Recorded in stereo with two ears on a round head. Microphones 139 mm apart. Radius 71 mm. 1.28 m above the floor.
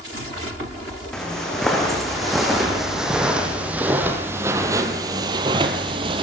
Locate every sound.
1.1 s footsteps: 5° left (ahead or behind), 3.5 m; by 6.2 s 35° right (ahead or behind), 1.5 m